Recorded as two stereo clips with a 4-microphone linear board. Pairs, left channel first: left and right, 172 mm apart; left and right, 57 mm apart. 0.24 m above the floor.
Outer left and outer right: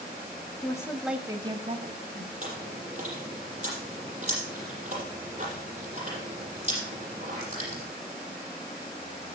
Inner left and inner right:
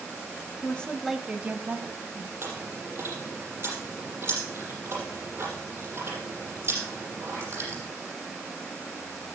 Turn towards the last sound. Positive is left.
turn(degrees=-45)  # may be behind; listen again after turning